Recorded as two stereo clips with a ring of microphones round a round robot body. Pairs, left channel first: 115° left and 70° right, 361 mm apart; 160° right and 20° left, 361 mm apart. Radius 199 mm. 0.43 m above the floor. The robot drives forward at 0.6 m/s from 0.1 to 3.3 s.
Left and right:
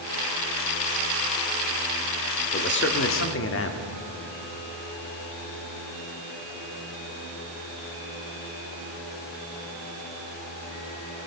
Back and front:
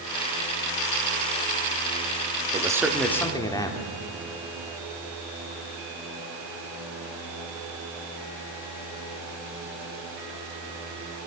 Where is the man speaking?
85° left, 1.1 m; by 3.9 s 130° left, 1.2 m.